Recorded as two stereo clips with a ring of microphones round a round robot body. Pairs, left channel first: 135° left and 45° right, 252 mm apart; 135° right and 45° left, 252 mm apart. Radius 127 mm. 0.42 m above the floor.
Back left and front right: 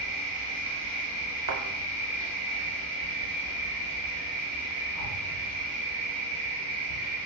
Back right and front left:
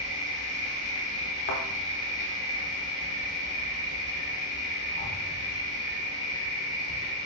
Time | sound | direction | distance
0.0 | an insect | 150° left | 1.8 m
1.5 | a thud | 80° right | 0.7 m